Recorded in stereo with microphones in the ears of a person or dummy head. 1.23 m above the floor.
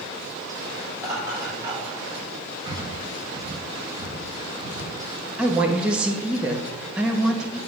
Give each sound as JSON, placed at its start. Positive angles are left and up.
{"t": 0.9, "sound": "laughter", "side_deg": -15, "distance_m": 4.5}
{"t": 2.6, "sound": "breathing", "side_deg": -25, "distance_m": 1.0}
{"t": 5.4, "sound": "a woman speaking", "side_deg": -5, "distance_m": 1.7}